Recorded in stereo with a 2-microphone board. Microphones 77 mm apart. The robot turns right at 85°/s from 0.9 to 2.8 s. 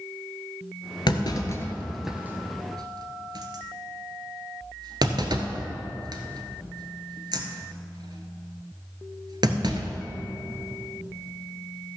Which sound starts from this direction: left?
A clunk, at 1.1 s.